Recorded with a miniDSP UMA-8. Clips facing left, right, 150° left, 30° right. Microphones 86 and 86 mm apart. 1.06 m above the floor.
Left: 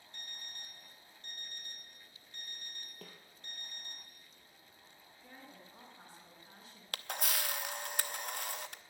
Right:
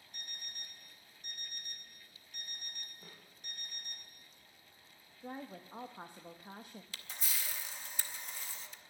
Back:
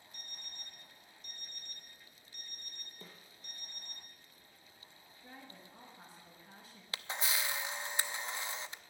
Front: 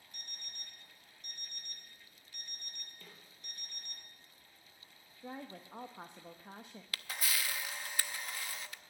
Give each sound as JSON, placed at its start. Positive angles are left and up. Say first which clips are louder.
{"t": 0.1, "sound": "an alarm clock", "louder": "even, front 1 dB", "azimuth_deg": -15, "distance_m": 2.5}
{"t": 3.0, "sound": "a snare drum", "louder": "left 3 dB, back 5 dB", "azimuth_deg": 90, "distance_m": 3.5}
{"t": 5.2, "sound": "a woman speaking", "louder": "right 10 dB, front 8 dB", "azimuth_deg": -55, "distance_m": 1.1}
{"t": 6.9, "sound": "a camera shutter", "louder": "left 8 dB, back 2 dB", "azimuth_deg": 90, "distance_m": 0.6}